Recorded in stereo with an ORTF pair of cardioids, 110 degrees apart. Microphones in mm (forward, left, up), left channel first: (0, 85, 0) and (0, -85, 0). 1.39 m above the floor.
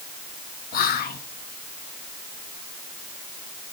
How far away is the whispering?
About 1.3 m.